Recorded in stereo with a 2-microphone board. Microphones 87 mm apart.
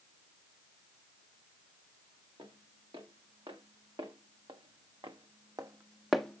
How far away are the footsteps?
About 3.5 m.